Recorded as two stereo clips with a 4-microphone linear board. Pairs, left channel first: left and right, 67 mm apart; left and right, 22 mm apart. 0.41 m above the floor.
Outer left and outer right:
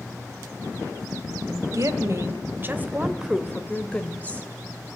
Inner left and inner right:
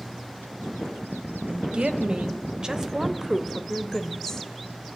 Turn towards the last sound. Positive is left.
turn(degrees=25)  # may be behind; listen again after turning